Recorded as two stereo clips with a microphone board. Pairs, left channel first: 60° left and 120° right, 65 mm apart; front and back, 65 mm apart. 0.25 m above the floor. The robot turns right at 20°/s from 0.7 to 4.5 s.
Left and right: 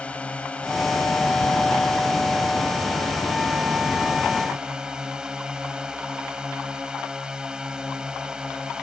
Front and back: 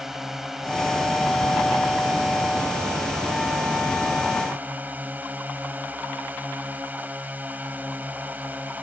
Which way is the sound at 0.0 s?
105° left.